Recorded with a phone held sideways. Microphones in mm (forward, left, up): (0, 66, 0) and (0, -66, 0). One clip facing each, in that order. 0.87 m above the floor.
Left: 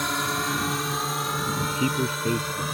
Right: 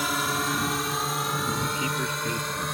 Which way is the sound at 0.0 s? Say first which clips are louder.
Even; 5° right (ahead or behind).